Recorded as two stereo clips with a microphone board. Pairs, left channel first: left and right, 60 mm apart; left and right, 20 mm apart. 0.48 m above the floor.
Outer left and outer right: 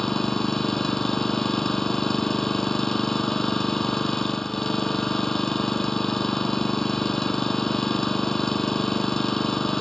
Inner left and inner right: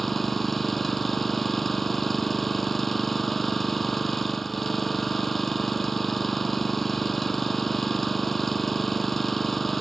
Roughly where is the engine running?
Centre.